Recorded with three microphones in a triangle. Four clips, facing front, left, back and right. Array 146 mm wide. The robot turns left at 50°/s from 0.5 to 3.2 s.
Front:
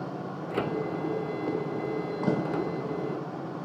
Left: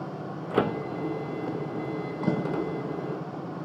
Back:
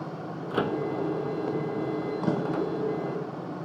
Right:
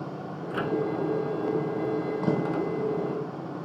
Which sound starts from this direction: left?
A microwave, at 0.5 s.